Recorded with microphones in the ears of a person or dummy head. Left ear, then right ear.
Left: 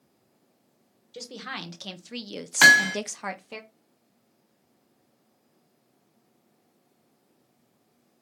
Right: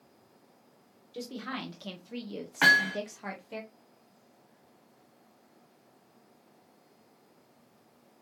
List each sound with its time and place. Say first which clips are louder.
1.1 s a woman speaking: left 2 dB; 20° left (ahead or behind), 1.3 m; by 3.6 s 30° left (ahead or behind), 0.8 m
2.6 s hammering: left 6 dB; 85° left, 1.0 m